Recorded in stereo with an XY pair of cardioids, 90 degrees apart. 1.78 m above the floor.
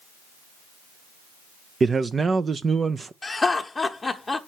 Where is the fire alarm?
No fire alarm in this recording.